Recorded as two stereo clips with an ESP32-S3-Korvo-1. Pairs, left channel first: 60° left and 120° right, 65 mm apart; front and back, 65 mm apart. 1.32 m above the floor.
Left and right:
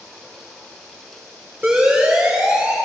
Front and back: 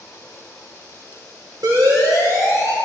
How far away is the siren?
About 6 m.